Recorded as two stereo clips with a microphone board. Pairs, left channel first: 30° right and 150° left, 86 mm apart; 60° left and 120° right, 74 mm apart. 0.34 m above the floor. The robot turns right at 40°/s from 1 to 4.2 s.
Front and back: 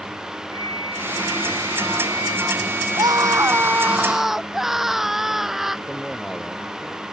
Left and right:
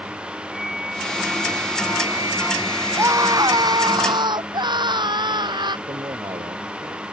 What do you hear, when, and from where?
0.5 s a flute: 155° left; by 4.0 s 90° right
3.0 s a scream: 175° right; by 5.8 s 125° right
5.9 s a man speaking: 120° right